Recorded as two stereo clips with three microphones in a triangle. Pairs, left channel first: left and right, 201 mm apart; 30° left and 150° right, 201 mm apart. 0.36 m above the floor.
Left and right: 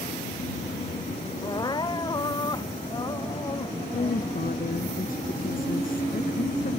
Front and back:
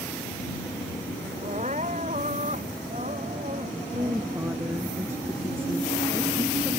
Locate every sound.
1.4 s crying: 160° left
3.9 s a woman speaking: 130° left